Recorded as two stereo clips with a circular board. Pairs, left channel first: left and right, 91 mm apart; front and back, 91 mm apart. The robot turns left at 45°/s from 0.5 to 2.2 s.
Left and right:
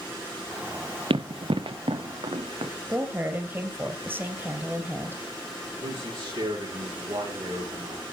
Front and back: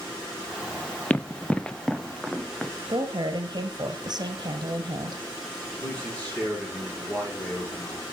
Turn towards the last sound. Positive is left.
turn(degrees=-80)